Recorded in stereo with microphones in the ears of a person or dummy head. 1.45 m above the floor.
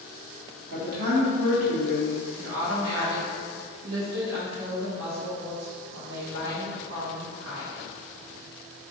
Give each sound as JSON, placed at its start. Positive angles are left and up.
{"t": 0.7, "sound": "a man speaking", "side_deg": -65, "distance_m": 0.9}
{"t": 2.4, "sound": "a woman speaking", "side_deg": -70, "distance_m": 0.7}